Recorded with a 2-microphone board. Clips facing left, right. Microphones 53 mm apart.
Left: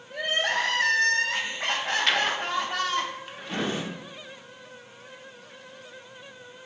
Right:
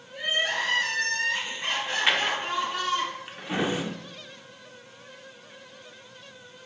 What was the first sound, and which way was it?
Crying, 85° left.